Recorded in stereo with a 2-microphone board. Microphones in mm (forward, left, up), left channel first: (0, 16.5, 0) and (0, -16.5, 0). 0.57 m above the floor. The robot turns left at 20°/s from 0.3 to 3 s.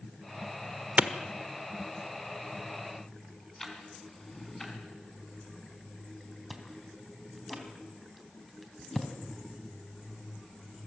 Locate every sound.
1.0 s a clap: 45° right (ahead or behind), 1.2 m; by 1.1 s 50° right (ahead or behind), 1.2 m
3.6 s ticking: 10° left (ahead or behind), 4 m
6.5 s chewing: centre (ahead or behind), 3 m